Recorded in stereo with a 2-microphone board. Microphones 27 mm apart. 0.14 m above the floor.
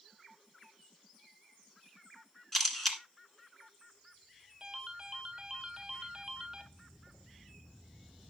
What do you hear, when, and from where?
2.5 s a camera shutter: 10° left (ahead or behind), 1.5 m
4.6 s a ringtone: 15° right (ahead or behind), 1.1 m